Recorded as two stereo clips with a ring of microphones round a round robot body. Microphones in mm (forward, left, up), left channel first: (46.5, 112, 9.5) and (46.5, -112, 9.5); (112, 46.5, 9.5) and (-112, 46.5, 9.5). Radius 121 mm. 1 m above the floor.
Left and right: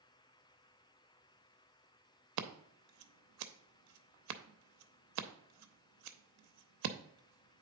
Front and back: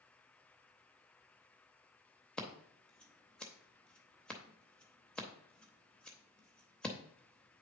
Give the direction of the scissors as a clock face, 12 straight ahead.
3 o'clock.